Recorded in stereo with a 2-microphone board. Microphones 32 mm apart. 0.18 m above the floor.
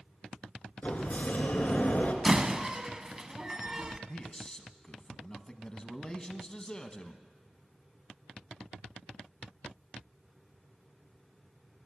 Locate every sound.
0.8 s a sliding door: 45° left (ahead or behind), 1.9 m
2.2 s a door slam: 20° right (ahead or behind), 0.8 m
4.1 s a man speaking: 20° left (ahead or behind), 1.0 m